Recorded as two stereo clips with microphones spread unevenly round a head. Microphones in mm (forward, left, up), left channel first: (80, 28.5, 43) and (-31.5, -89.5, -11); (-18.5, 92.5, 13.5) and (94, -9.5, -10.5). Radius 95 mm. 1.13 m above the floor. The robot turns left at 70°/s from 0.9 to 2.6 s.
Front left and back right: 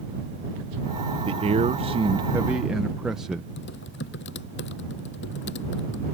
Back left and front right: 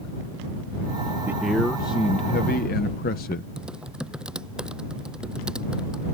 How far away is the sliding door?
I don't hear a sliding door.